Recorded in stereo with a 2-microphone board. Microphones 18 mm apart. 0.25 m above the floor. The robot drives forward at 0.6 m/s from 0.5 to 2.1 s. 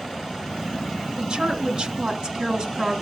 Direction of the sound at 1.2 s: 50° right (ahead or behind).